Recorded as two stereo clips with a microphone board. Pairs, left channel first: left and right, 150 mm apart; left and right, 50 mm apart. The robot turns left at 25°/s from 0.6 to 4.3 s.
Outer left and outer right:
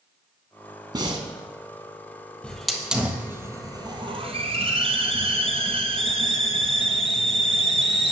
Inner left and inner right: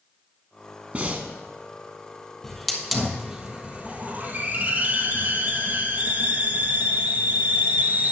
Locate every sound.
0.9 s breathing: 30° right (ahead or behind), 1.1 m; by 1.3 s 35° right (ahead or behind), 1.1 m
2.4 s a hiss: 5° left, 1.3 m; by 8.1 s 40° right, 1.3 m